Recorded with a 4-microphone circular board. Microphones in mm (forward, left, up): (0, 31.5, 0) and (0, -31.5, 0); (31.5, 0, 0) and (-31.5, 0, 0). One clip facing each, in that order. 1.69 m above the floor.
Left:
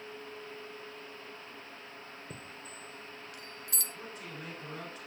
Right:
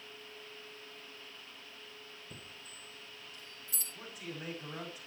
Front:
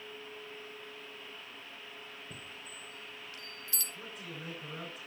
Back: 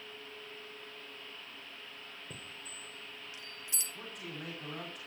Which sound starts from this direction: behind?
A man speaking, at 3.9 s.